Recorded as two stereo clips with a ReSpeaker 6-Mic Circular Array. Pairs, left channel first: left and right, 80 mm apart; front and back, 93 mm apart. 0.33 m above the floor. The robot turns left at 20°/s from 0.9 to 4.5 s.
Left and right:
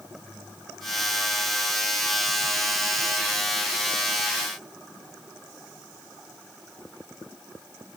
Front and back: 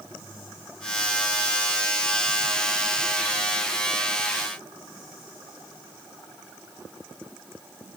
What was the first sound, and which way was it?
Only background noise.